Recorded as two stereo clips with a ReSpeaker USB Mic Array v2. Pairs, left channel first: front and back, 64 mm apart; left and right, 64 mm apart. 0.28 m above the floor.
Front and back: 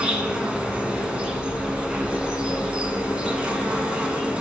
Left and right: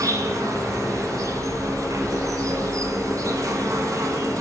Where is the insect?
110° right, 0.9 m.